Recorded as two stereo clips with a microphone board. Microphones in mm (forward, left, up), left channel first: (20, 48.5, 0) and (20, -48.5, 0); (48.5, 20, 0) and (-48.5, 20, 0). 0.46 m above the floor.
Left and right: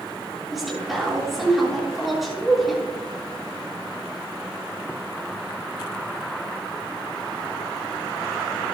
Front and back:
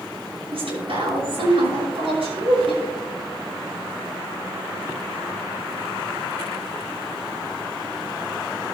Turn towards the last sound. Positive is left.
turn(degrees=180)